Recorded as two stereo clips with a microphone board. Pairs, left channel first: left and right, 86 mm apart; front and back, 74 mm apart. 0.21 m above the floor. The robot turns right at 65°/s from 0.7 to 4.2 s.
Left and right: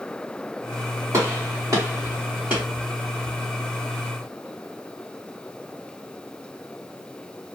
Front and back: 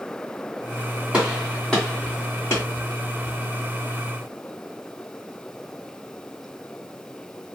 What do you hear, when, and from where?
1.1 s a gunshot: 110° right, 1.8 m; by 2.6 s 15° right, 1.8 m